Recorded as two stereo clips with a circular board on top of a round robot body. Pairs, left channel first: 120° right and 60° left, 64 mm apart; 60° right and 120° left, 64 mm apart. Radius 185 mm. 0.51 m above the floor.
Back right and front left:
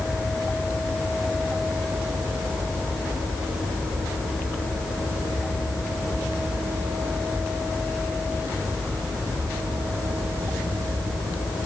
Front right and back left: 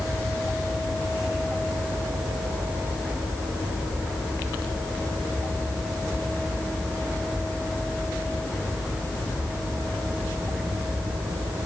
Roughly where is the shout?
No shout in this recording.